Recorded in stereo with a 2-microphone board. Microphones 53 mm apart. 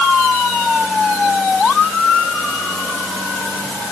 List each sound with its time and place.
Only background noise.